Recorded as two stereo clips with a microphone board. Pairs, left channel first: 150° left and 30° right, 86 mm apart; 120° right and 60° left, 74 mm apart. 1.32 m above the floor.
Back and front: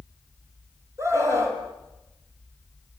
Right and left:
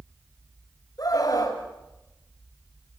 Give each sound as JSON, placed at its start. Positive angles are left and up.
{"t": 1.0, "sound": "a scream", "azimuth_deg": -85, "distance_m": 6.5}